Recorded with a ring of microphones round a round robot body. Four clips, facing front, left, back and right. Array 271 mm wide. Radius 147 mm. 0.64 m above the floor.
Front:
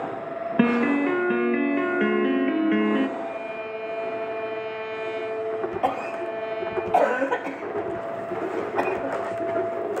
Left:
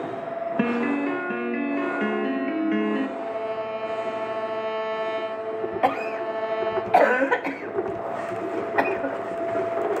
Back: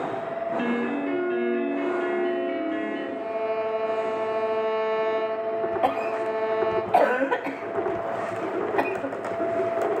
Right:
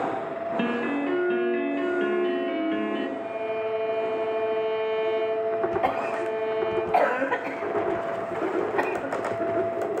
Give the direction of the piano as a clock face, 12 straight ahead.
11 o'clock.